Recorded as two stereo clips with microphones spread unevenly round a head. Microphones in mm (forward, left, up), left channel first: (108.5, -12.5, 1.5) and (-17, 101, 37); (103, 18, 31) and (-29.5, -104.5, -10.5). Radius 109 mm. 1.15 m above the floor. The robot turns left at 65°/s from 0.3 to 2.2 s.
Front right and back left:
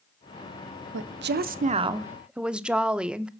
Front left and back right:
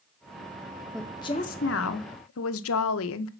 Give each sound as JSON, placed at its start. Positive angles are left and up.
{"t": 0.9, "sound": "a woman speaking", "azimuth_deg": 135, "distance_m": 0.7}